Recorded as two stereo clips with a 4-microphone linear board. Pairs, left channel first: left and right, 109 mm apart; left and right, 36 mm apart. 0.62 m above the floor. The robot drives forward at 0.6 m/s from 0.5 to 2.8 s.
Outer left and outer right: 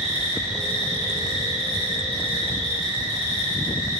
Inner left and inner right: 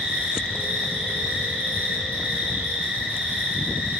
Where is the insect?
80° right, 1.6 m; by 4.0 s 55° right (ahead or behind), 2 m.